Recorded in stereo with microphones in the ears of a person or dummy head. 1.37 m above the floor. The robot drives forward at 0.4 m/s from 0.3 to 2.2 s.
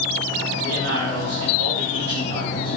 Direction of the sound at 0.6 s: 75° right (ahead or behind).